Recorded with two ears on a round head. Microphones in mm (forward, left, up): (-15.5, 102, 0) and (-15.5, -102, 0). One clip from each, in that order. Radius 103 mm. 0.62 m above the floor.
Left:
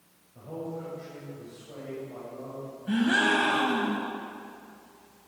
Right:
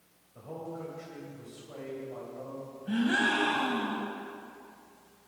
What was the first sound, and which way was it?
A man speaking, 50° right (ahead or behind).